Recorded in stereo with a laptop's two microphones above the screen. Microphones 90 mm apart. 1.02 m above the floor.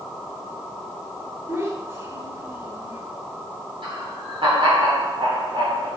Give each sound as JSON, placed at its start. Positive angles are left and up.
{"t": 1.5, "sound": "a child speaking", "side_deg": -30, "distance_m": 2.0}
{"t": 3.8, "sound": "laughter", "side_deg": -75, "distance_m": 3.5}